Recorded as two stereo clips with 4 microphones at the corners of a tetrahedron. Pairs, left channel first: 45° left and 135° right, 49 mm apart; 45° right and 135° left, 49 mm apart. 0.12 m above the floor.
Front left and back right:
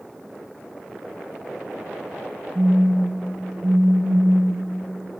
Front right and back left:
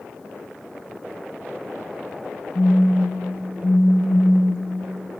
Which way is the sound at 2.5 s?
80° right.